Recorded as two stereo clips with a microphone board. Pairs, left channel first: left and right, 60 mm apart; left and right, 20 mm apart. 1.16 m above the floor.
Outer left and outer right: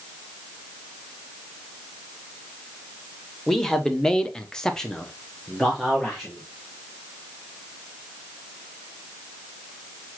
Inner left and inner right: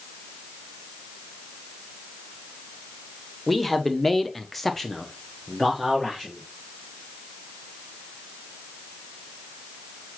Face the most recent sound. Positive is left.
turn(degrees=0)  # may be behind; listen again after turning